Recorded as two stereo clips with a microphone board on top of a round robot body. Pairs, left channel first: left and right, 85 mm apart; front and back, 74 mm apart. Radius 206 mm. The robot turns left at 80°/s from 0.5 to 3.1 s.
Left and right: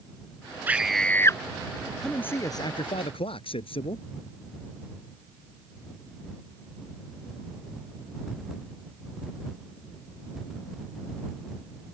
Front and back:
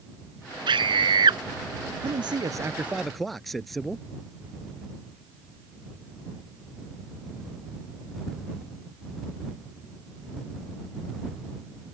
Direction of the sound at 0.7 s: 160° right.